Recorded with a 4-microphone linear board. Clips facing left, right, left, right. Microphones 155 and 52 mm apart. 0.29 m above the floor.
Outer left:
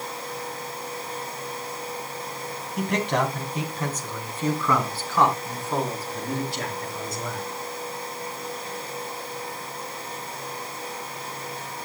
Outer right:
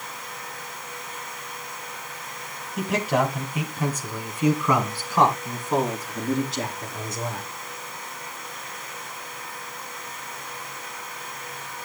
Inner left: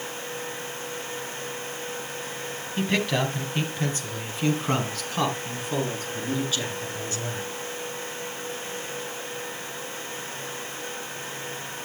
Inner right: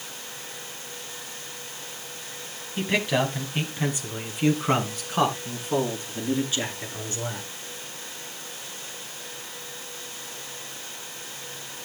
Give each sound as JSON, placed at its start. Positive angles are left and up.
{"t": 2.8, "sound": "a man speaking", "side_deg": 0, "distance_m": 1.9}